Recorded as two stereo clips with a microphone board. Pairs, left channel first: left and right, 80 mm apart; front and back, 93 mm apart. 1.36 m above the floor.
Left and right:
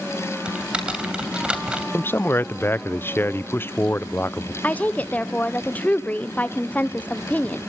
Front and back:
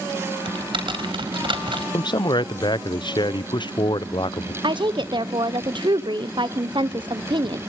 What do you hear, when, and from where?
0.5 s typing on a keyboard: 165° right, 2.5 m
1.9 s a man speaking: 30° left, 0.5 m
4.6 s a woman speaking: 160° left, 0.8 m